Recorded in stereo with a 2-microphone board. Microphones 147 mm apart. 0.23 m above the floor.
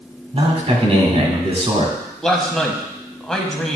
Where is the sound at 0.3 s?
40° right (ahead or behind), 1.9 m.